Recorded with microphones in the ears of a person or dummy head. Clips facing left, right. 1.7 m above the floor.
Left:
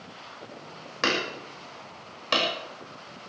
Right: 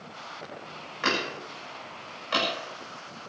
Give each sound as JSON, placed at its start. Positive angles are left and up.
{"t": 1.0, "sound": "hammering", "side_deg": 65, "distance_m": 6.5}